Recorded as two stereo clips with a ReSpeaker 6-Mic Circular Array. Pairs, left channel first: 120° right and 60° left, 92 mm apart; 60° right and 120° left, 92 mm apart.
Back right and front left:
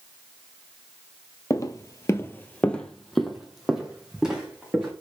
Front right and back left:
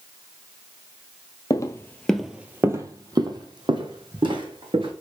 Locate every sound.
1.5 s footsteps: 85° right, 0.6 m; by 4.9 s 140° left, 1.7 m